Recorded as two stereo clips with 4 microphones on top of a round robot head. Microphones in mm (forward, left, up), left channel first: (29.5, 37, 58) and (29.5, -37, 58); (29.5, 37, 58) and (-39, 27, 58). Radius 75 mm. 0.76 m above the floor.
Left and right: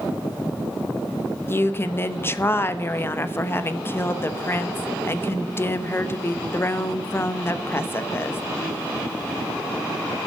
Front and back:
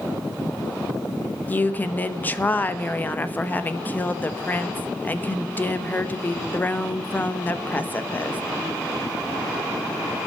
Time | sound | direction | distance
1.5 | a woman speaking | 55° left | 1.0 m